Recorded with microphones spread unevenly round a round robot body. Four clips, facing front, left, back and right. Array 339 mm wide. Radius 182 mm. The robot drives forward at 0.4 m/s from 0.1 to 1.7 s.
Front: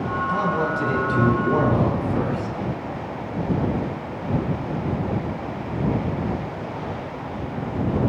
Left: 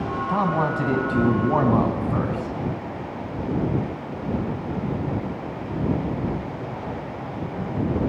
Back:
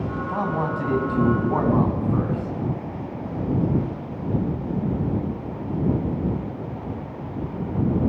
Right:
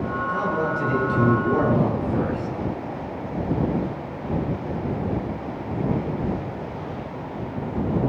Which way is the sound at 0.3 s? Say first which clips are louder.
Left 3 dB, front 2 dB; 100° left.